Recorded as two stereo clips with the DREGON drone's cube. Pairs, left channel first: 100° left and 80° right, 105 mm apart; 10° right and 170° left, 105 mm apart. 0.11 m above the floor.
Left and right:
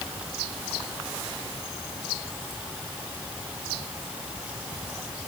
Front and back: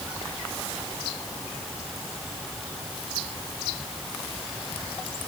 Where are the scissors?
No scissors in this recording.